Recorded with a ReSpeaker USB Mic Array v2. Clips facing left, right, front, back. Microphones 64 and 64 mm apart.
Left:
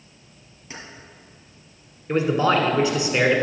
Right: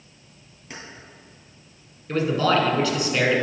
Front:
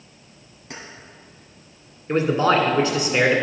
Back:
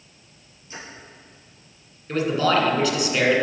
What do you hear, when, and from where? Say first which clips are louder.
0.7 s keys jangling: even, front 1 dB; 5° right, 2.5 m
2.1 s a man speaking: left 1 dB, front 2 dB; 35° left, 1.2 m